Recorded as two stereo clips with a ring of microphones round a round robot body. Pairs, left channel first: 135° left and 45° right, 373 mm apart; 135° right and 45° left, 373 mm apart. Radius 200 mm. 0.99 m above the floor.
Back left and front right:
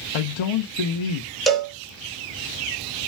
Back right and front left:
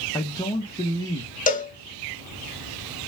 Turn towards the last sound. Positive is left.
turn(degrees=-135)